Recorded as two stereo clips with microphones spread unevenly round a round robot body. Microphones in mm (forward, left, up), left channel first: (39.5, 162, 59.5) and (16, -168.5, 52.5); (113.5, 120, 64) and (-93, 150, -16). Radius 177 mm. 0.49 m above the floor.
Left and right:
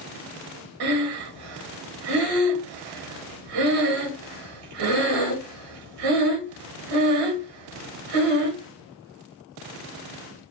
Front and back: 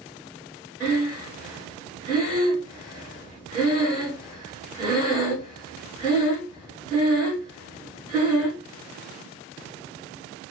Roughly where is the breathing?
Right.